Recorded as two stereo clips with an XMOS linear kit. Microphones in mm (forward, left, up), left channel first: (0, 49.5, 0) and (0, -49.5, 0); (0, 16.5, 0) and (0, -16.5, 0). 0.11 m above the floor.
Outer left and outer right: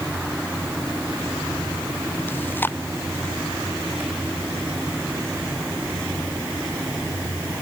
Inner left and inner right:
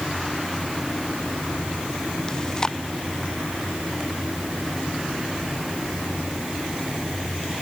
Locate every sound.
2.3 s chewing: 20° left (ahead or behind)